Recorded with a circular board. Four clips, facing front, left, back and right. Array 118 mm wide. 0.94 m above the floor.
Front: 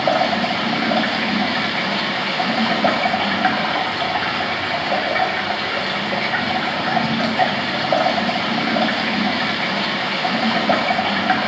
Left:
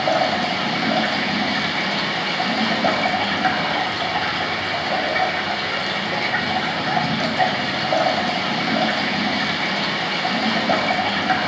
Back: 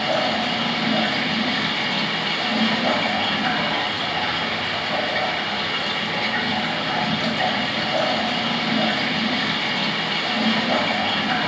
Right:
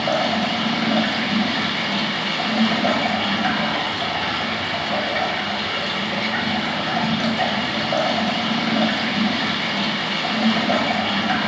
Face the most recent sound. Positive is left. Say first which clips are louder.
# left 1 dB, front 4 dB
turn(degrees=15)